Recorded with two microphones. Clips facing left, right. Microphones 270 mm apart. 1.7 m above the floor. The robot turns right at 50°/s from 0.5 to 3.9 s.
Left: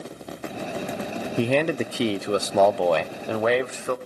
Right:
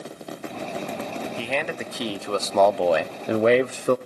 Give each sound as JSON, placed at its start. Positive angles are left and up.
{"t": 1.4, "sound": "a man speaking", "azimuth_deg": 110, "distance_m": 0.5}